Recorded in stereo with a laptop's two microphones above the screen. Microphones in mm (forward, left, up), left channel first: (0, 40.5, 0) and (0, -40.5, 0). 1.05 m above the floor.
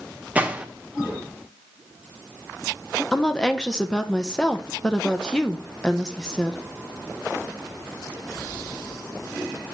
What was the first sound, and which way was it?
A gunshot, 20° right (ahead or behind).